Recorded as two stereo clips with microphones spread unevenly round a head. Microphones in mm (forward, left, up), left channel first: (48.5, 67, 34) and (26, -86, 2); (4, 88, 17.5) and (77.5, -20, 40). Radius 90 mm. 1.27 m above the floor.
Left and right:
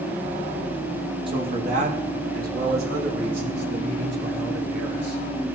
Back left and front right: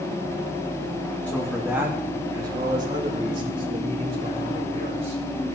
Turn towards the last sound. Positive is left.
turn(degrees=-105)